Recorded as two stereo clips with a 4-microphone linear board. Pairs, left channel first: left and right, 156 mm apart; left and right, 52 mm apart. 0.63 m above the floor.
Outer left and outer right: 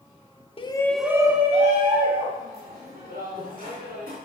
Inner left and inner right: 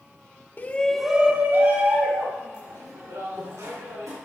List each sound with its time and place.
0.6 s a shout: 35° left (ahead or behind), 1.0 m; by 4.2 s 70° right (ahead or behind), 5 m